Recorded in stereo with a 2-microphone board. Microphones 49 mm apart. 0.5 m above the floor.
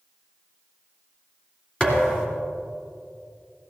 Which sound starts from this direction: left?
A thud, at 1.8 s.